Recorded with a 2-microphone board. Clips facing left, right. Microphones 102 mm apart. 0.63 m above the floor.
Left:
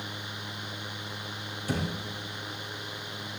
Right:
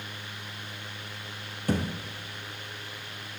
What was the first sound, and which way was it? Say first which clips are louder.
A thud: right 3 dB; 55° right (ahead or behind).